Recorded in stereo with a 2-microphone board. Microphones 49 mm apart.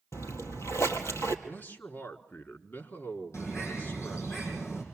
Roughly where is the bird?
Left.